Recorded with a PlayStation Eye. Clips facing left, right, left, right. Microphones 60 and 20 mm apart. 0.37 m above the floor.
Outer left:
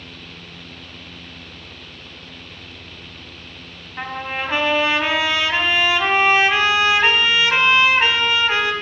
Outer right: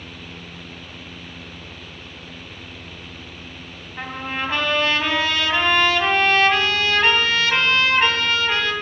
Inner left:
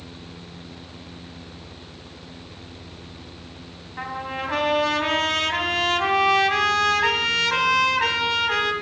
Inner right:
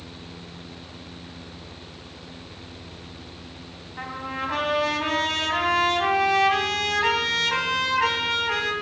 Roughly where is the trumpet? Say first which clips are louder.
Outer left 1 dB, inner left 2 dB; centre.